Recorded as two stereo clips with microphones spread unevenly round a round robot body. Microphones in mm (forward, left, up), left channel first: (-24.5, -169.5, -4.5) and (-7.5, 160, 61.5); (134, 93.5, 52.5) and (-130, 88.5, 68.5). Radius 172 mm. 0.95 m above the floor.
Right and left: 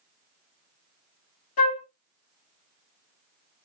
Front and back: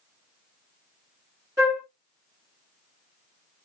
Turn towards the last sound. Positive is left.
turn(degrees=-100)